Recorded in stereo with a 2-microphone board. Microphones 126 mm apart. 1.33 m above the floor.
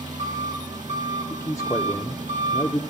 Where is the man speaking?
25° left (ahead or behind), 0.6 m.